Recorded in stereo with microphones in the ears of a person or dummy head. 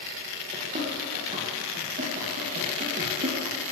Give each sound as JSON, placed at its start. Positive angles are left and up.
{"t": 0.5, "sound": "running footsteps", "side_deg": -25, "distance_m": 3.0}